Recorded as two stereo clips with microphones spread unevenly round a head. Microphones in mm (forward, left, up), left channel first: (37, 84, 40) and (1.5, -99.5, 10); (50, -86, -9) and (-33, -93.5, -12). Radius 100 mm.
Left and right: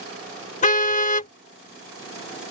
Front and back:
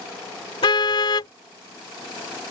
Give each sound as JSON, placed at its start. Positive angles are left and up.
{"t": 0.6, "sound": "a car horn", "azimuth_deg": 35}